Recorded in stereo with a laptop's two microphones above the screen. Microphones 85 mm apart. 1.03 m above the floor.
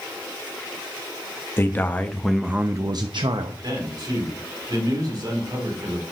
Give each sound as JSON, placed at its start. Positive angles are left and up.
{"t": 1.6, "sound": "a man speaking", "side_deg": 30, "distance_m": 1.2}
{"t": 3.6, "sound": "a man speaking", "side_deg": -50, "distance_m": 3.5}